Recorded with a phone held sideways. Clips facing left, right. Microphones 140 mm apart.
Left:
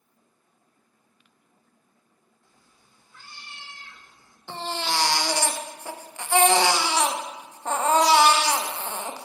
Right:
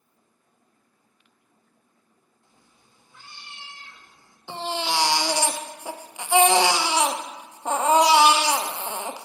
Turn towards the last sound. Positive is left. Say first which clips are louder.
# right 2 dB
turn(degrees=-15)  # may be behind; listen again after turning